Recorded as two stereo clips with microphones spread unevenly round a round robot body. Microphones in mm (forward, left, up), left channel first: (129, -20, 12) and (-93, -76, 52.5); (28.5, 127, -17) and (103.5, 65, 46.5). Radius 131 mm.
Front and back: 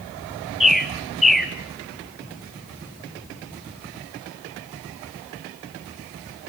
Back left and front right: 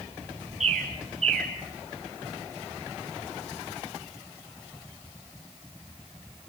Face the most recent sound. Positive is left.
turn(degrees=-75)